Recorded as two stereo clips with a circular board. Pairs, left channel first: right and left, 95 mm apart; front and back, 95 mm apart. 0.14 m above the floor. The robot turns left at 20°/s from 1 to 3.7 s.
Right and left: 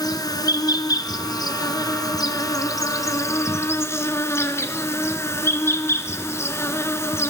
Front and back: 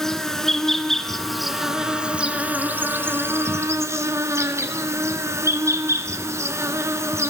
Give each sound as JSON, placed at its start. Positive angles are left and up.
{"t": 0.0, "sound": "an insect", "azimuth_deg": -85, "distance_m": 1.0}